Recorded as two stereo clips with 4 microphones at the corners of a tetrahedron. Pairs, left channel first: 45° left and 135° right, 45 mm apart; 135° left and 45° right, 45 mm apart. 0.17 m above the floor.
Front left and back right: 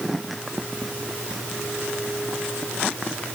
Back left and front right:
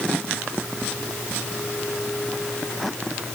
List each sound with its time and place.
Only background noise.